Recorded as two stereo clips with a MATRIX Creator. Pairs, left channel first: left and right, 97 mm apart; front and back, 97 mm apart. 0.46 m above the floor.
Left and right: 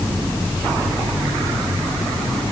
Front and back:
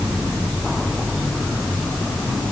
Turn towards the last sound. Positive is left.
No sound to turn to.